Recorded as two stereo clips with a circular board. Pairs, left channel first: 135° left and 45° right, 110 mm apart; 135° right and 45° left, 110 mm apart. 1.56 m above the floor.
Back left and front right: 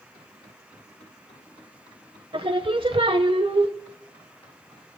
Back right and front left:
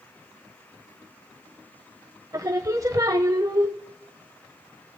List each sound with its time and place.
2.3 s singing: 10° right, 0.8 m